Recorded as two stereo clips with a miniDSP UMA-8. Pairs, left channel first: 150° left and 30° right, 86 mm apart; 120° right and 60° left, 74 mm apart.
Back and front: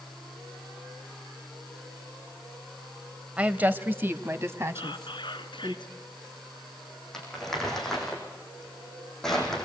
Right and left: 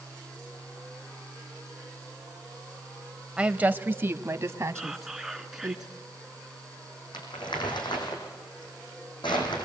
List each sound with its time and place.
3.4 s a woman speaking: 15° left, 1.0 m; by 5.8 s 20° left, 2.5 m
4.8 s whispering: 145° left, 3 m
7.1 s crumpling: 125° right, 6.5 m